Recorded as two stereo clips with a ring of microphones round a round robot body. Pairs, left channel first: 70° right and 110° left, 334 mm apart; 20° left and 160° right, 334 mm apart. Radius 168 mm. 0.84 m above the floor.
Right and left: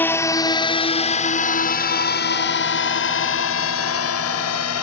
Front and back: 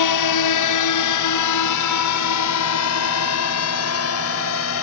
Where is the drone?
15° left; by 4.8 s 25° right.